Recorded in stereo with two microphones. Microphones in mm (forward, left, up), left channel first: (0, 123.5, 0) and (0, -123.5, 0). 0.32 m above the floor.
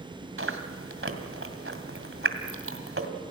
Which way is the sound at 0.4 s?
55° right (ahead or behind).